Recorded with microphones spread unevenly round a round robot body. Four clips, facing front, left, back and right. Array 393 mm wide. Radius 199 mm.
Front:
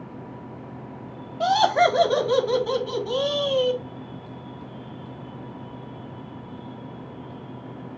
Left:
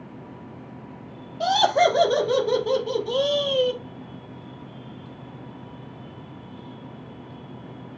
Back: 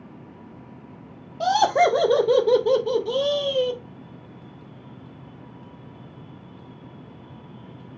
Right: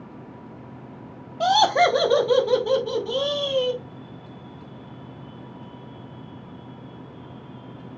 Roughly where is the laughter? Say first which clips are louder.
Right 1 dB, even; behind.